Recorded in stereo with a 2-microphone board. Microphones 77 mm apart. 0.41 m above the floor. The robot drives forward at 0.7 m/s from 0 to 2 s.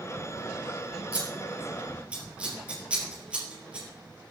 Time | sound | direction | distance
1.1 | scissors | 15° right (ahead or behind) | 3.5 m